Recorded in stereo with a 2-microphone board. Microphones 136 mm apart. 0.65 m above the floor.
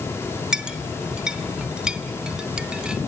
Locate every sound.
0.5 s a clink: 5° right (ahead or behind), 0.8 m